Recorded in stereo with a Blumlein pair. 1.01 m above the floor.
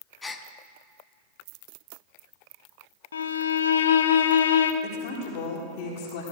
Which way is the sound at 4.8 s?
45° left.